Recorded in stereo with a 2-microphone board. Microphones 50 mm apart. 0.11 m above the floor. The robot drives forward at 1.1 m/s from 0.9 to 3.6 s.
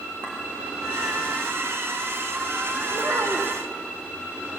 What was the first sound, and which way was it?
A clink, 25° right (ahead or behind).